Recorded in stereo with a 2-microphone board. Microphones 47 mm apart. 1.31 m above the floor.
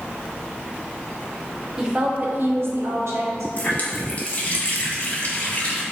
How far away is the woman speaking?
About 0.6 m.